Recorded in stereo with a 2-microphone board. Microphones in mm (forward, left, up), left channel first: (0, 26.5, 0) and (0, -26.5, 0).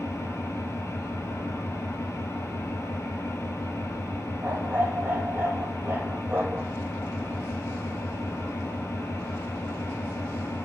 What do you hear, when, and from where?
0.0 s an engine running: 70° left (ahead or behind), 1.3 m
4.4 s a dog barking: 40° right (ahead or behind), 1.4 m